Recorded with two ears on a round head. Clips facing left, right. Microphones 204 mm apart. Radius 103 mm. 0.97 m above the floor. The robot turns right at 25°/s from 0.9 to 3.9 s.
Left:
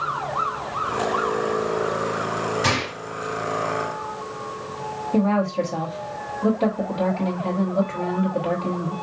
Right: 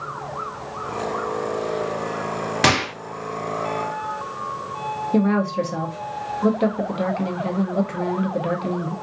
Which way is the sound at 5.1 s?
20° right (ahead or behind).